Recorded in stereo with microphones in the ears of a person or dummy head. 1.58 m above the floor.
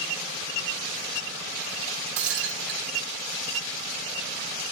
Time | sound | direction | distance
2.2 | breaking glass | 70° right (ahead or behind) | 2 m